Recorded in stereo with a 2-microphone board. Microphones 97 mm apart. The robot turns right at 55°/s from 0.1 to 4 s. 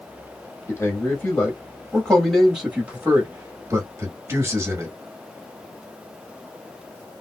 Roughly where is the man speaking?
Left.